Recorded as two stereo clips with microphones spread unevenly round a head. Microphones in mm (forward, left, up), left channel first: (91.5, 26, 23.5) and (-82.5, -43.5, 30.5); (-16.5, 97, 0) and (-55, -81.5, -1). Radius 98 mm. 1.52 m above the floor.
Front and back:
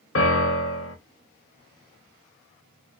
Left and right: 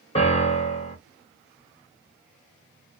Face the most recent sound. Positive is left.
turn(degrees=20)